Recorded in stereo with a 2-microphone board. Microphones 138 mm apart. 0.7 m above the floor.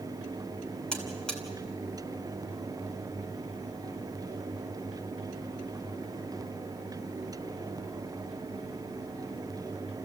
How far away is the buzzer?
About 2.5 m.